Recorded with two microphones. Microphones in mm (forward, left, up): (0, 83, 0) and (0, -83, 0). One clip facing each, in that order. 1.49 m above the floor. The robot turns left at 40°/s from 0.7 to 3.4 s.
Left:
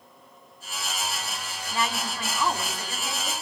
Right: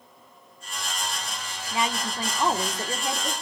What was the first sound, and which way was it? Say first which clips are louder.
A woman speaking: right 2 dB; 15° right.